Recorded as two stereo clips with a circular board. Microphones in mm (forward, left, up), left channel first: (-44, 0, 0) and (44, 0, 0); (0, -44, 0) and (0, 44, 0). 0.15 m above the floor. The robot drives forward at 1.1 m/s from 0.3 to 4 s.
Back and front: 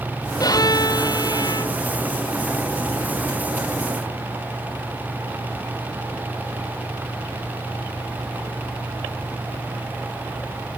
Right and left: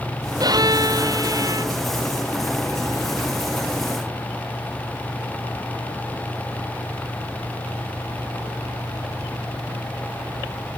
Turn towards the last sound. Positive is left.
turn(degrees=145)